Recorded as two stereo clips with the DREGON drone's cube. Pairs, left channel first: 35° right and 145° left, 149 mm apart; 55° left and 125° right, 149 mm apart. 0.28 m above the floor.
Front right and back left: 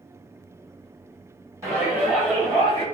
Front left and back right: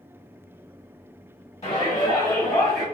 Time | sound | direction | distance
1.6 | a shout | 85° left | 1.6 m